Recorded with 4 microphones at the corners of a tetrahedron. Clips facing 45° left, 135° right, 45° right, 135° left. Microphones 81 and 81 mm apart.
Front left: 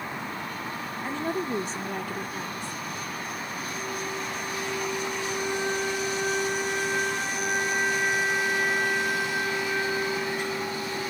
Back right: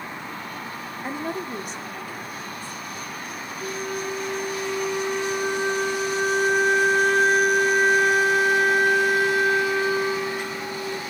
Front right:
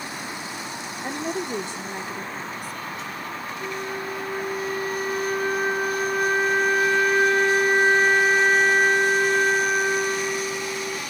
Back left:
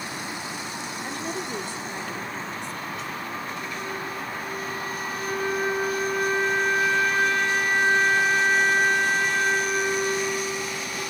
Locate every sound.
1.0 s a woman speaking: 80° right, 0.8 m; by 3.3 s 45° left, 2 m
3.6 s a flute: 115° right, 3.5 m